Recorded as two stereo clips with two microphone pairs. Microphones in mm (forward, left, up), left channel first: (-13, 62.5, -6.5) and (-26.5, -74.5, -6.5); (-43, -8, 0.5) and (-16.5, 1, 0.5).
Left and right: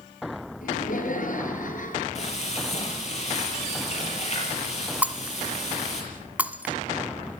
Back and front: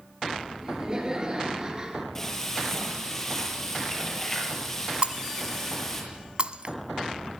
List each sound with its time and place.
0.6 s laughter: 85° left, 5 m
2.1 s frying: 120° left, 7 m
5.0 s breaking glass: 20° right, 1.1 m